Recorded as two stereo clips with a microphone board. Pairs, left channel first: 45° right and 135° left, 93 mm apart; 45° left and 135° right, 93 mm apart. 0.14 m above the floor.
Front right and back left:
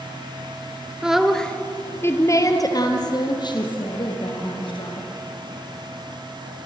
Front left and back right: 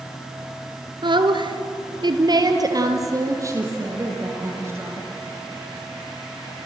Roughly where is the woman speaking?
Behind right.